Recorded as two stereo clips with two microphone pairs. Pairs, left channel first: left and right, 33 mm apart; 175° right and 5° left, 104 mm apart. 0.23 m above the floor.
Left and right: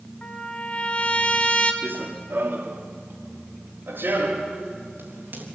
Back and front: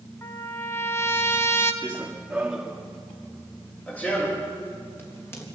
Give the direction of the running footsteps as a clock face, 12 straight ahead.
2 o'clock.